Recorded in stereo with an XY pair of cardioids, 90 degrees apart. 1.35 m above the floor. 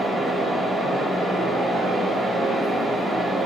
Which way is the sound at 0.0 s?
30° right.